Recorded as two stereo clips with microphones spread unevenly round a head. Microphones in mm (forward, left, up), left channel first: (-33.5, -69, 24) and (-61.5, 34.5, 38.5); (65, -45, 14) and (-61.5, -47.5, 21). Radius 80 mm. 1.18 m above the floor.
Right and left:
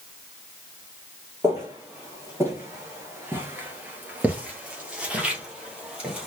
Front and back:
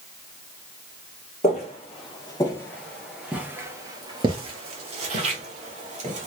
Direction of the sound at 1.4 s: 40° left.